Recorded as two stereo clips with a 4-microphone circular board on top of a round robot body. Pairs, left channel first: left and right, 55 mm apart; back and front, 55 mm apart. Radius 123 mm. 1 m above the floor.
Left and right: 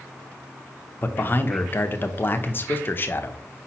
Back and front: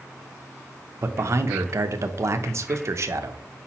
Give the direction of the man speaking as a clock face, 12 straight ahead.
11 o'clock.